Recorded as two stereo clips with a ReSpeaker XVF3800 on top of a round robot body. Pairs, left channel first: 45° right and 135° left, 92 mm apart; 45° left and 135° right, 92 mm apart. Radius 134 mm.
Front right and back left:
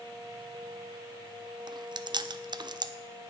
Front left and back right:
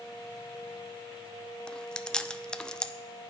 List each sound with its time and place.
1.7 s chewing: 125° left, 0.6 m